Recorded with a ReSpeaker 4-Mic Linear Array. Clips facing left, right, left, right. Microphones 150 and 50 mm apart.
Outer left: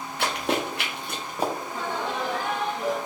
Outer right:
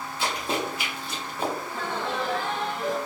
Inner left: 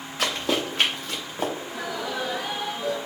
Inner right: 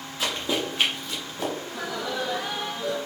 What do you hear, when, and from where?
0.2 s running footsteps: 70° left (ahead or behind), 1.6 m; by 1.5 s 35° left (ahead or behind), 1.5 m
1.6 s laughter: 10° left (ahead or behind), 1.2 m